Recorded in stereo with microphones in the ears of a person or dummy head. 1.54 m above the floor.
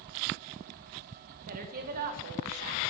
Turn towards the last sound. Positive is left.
turn(degrees=-50)  # may be behind; listen again after turning